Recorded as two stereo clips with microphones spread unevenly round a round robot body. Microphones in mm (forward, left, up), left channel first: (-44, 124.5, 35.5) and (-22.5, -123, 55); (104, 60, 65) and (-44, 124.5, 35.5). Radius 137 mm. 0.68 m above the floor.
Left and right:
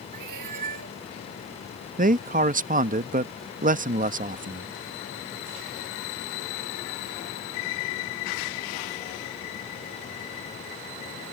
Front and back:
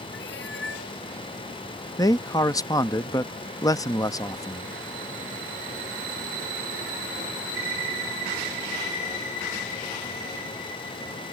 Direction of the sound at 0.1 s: 65° right.